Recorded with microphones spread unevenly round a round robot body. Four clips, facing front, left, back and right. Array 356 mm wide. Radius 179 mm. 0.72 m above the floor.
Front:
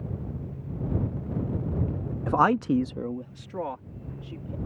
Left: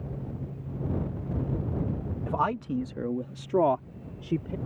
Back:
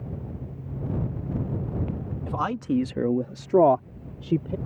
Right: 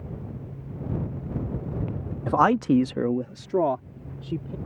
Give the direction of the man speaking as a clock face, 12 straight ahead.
2 o'clock.